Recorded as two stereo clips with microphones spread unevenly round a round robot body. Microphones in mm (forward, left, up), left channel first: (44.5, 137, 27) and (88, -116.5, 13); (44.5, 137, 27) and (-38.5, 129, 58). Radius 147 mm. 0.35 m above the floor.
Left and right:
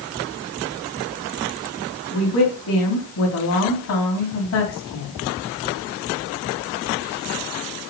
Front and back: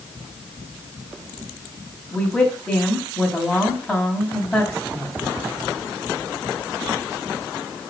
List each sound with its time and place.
2.1 s a woman speaking: 80° left, 3 m